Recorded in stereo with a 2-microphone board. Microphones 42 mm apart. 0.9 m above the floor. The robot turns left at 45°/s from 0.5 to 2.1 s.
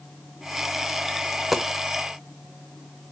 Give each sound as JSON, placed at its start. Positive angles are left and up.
{"t": 1.3, "sound": "a dropped coin", "side_deg": -10, "distance_m": 0.8}